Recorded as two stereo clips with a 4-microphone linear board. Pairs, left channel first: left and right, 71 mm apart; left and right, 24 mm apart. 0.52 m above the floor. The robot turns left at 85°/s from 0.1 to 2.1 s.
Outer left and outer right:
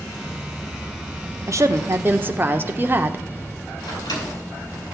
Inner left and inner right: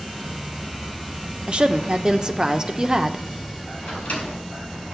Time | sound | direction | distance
1.5 | a woman speaking | 85° right | 0.9 m
3.9 | a microwave | 70° left (ahead or behind) | 4.5 m